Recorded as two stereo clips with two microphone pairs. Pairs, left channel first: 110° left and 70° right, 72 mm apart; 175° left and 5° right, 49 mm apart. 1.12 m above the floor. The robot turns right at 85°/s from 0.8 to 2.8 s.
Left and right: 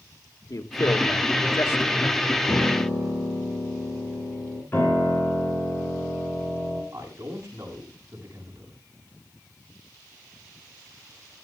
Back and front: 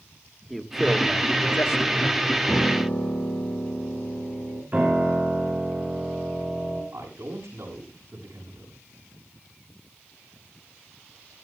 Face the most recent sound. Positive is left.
turn(degrees=-15)